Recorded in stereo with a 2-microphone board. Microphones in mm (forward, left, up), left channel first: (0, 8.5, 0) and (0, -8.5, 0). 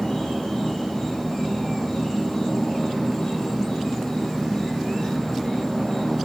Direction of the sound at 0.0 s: 50° left (ahead or behind).